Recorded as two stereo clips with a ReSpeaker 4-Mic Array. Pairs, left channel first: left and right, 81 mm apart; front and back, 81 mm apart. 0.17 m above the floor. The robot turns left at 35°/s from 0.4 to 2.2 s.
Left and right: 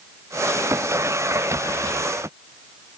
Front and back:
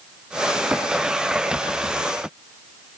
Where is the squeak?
No squeak in this recording.